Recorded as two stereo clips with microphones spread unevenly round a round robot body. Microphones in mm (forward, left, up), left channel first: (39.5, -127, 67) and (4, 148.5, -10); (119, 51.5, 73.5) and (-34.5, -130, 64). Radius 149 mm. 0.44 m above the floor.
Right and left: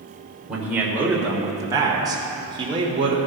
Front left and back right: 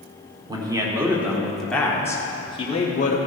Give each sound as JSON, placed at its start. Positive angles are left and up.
{"t": 0.5, "sound": "a man speaking", "azimuth_deg": 165, "distance_m": 1.7}